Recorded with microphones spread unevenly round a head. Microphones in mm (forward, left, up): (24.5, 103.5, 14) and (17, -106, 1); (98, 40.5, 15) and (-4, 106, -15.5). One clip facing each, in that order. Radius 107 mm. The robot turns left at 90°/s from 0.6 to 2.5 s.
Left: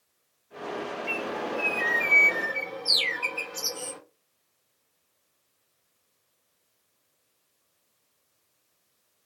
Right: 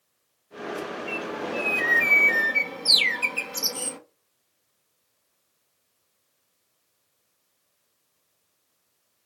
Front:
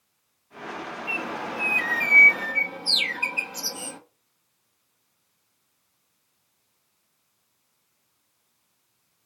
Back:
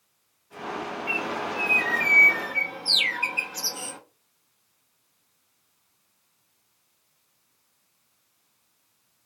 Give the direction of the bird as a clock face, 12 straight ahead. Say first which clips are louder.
Even, back 1 dB; 11 o'clock.